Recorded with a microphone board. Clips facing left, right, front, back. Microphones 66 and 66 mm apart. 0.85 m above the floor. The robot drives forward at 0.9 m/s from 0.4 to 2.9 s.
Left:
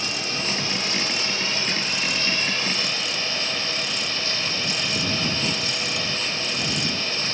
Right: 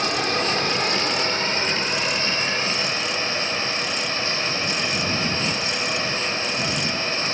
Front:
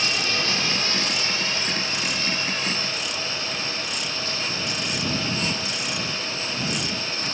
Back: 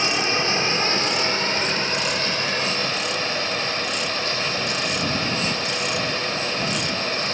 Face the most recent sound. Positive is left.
turn(degrees=-150)